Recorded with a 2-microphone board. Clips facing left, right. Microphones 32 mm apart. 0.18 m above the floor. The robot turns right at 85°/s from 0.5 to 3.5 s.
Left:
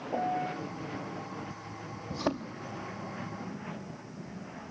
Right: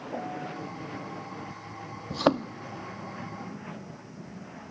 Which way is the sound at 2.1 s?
85° right.